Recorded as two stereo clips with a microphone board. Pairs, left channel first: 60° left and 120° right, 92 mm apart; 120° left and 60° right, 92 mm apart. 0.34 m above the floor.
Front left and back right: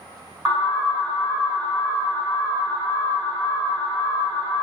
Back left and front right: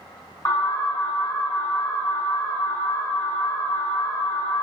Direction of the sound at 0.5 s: 160° left.